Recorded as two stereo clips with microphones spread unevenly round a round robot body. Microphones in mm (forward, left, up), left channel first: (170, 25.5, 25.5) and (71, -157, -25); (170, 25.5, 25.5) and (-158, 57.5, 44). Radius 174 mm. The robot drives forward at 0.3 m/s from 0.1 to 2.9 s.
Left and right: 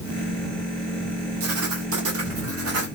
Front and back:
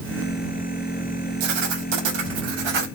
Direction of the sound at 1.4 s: 165° right.